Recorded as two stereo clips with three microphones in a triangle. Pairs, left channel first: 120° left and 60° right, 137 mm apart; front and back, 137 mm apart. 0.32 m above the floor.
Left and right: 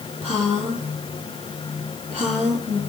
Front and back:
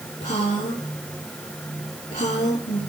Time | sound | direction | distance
0.2 | a woman speaking | 20° right | 8 m